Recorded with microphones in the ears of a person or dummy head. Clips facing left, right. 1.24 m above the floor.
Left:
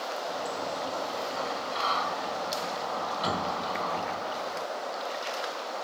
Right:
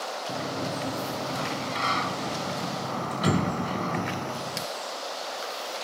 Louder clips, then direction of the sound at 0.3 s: Right 5 dB; 35° right (ahead or behind).